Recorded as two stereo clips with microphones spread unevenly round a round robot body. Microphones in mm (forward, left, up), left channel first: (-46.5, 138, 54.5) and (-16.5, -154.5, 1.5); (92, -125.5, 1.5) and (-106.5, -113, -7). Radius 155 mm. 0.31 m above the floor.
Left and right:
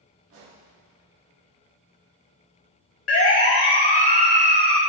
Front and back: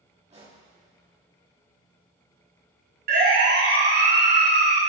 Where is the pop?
125° right, 6.5 m.